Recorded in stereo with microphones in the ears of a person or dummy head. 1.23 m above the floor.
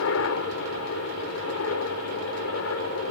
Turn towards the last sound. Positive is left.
turn(degrees=75)  # may be behind; listen again after turning